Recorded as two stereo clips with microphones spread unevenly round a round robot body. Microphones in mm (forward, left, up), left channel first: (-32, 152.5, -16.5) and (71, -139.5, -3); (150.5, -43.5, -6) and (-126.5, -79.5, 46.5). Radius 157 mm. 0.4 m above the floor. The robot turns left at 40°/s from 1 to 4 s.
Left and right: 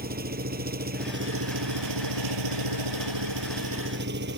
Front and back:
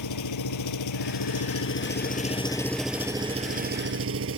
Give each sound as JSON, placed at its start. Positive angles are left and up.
{"t": 0.0, "sound": "an engine running", "azimuth_deg": -10}